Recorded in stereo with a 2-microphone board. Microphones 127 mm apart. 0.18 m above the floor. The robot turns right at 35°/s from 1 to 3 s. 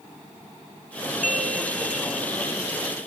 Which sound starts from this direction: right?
A bell, at 1.2 s.